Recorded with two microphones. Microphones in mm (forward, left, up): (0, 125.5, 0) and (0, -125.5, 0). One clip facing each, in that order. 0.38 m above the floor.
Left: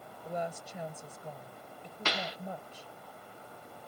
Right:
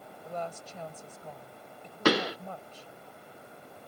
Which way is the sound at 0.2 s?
15° left (ahead or behind).